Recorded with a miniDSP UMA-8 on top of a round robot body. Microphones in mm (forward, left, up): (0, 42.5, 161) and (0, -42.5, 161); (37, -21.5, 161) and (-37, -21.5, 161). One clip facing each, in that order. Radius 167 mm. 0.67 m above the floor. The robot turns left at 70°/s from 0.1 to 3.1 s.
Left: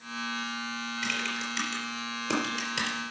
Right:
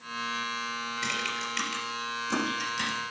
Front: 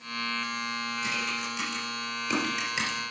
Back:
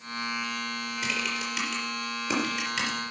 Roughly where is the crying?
I don't hear crying.